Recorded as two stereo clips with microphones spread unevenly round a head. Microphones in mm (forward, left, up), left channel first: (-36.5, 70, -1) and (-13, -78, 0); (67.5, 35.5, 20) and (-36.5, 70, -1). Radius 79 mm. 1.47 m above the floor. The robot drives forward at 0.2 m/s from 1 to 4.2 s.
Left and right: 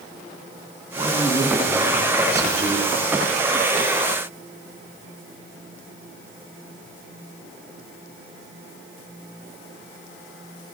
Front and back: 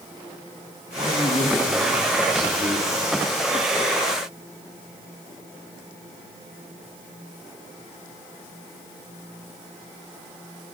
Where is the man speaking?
145° right, 3.5 m; by 3.0 s 150° right, 4 m.